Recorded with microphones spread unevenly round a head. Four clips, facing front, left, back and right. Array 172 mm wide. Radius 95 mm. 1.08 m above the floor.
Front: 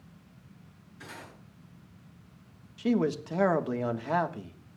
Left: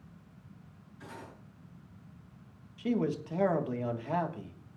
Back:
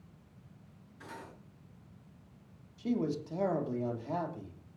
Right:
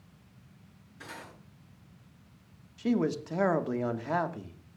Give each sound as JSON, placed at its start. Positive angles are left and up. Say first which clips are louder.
{"t": 1.0, "sound": "cutlery clinking", "louder": "right 1 dB, front 1 dB", "azimuth_deg": -75, "distance_m": 7.0}
{"t": 2.8, "sound": "a man speaking", "louder": "right 3 dB, front 6 dB", "azimuth_deg": 0, "distance_m": 1.7}